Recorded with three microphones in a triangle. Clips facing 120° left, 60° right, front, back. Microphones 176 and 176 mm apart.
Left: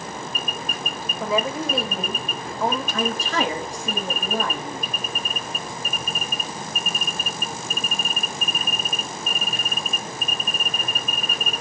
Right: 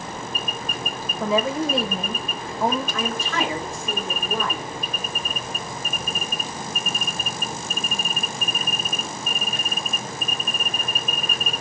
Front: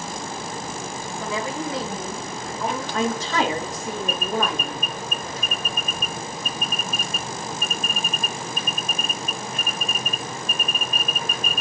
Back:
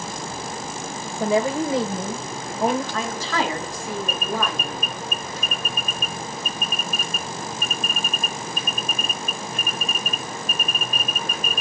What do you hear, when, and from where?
1.2 s a woman speaking: 145° right, 1.7 m
2.9 s a woman speaking: 70° left, 5 m